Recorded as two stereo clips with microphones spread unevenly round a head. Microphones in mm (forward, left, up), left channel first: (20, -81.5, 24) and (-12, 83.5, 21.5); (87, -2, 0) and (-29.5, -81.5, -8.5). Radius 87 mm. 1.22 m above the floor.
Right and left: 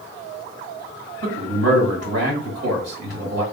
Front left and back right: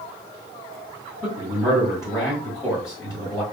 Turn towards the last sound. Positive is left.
turn(degrees=110)